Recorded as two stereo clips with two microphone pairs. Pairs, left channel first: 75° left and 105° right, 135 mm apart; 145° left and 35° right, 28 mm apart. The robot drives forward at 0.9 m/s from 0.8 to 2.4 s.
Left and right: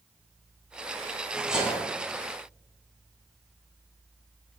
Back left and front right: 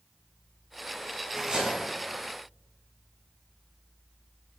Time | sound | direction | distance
1.4 | cutlery clinking | 20° right | 1.0 m